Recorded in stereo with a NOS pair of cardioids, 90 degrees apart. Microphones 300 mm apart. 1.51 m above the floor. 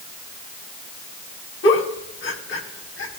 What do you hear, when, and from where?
1.6 s a giggle: 45° left, 4.5 m